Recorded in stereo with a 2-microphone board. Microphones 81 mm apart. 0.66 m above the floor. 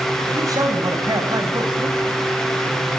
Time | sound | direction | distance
0.3 | a man speaking | 45° right (ahead or behind) | 6 m